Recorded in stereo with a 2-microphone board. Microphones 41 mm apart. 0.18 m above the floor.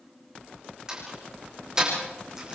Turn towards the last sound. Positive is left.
turn(degrees=-20)  # may be behind; listen again after turning